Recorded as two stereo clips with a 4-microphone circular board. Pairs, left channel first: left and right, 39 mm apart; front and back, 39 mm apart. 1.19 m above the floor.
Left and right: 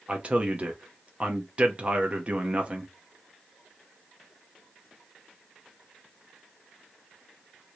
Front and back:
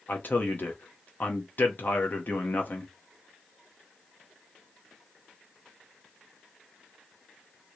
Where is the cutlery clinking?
No cutlery clinking in this recording.